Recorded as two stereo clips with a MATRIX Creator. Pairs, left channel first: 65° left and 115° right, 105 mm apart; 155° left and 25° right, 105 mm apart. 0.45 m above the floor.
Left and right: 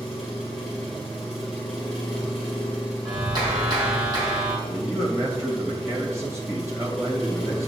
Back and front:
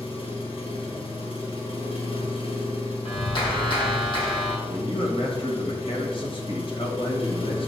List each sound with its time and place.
0.0 s an engine running: 160° left, 2.5 m
3.0 s a clap: 160° right, 3 m
4.7 s a man speaking: 175° right, 2.0 m